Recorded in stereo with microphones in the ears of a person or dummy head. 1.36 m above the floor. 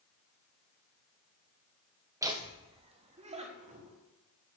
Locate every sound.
2.2 s laughter: 15° right (ahead or behind), 0.8 m; by 4.0 s 40° right (ahead or behind), 1.9 m